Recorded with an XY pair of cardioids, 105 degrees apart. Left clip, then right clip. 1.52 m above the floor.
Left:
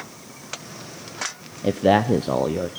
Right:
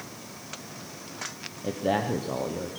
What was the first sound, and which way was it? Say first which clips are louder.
A man speaking: left 9 dB; 60° left.